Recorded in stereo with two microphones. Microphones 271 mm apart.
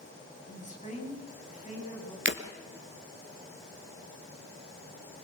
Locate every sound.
0.5 s a woman speaking: 25° left (ahead or behind), 7 m
2.2 s breaking glass: 45° right (ahead or behind), 1.9 m